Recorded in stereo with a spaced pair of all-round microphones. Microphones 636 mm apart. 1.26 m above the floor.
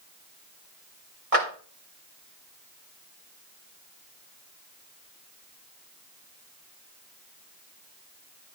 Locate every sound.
1.3 s a clap: 60° right (ahead or behind), 3.5 m